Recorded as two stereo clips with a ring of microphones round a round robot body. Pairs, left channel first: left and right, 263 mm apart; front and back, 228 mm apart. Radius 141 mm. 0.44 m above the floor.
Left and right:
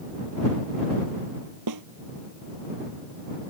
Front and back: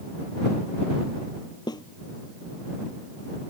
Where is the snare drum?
75° right.